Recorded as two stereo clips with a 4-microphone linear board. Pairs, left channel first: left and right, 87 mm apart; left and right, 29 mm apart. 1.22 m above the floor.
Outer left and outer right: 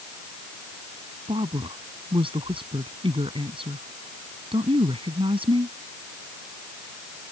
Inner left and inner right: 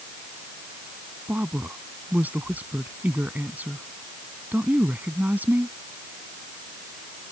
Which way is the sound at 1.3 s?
75° right (ahead or behind).